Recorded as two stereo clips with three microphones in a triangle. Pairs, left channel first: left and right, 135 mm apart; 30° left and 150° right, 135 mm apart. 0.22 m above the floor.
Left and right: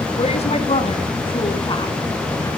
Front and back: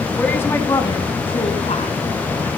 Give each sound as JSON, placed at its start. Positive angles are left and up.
{"t": 0.2, "sound": "a woman speaking", "azimuth_deg": 110, "distance_m": 2.5}